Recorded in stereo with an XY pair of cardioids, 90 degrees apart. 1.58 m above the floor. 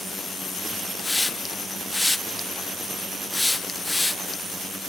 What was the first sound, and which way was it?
A hiss, 10° left.